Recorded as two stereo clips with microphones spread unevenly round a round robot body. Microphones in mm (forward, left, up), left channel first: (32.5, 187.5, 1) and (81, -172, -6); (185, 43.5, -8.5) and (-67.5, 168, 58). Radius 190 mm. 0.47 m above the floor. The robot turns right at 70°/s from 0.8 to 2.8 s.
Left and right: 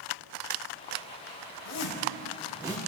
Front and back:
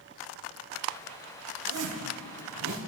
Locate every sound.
1.6 s a zipper: 125° left, 4 m; by 2.8 s 155° right, 4 m